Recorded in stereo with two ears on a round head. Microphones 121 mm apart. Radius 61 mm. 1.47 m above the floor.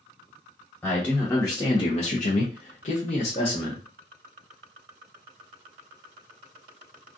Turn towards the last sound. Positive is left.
turn(degrees=35)  # may be behind; listen again after turning